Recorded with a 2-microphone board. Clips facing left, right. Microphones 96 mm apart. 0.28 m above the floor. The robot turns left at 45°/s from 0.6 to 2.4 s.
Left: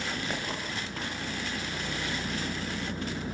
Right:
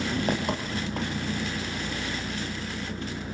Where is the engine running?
115° right, 5 m; by 3.4 s 160° left, 5 m.